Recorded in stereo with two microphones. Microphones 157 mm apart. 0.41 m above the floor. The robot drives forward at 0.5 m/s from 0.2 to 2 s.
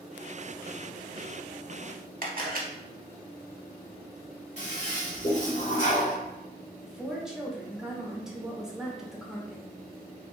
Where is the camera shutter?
60° right (ahead or behind), 0.7 m.